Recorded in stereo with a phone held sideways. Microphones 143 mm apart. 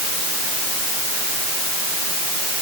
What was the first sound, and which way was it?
Only background noise.